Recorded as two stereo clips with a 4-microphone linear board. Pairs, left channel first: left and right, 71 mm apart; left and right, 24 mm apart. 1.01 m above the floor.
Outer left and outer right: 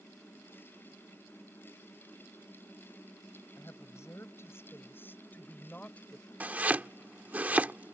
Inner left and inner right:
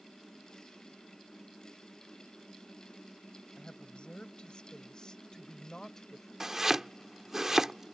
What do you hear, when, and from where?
3.6 s a woman speaking: 45° left (ahead or behind); by 6.3 s 15° left (ahead or behind)
6.4 s chopping: 20° right (ahead or behind)